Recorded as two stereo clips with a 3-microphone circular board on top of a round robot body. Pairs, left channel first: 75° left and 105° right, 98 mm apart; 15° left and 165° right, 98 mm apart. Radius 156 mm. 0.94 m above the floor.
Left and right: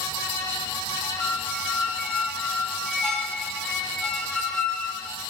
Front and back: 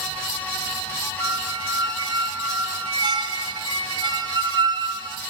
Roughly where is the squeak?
Behind.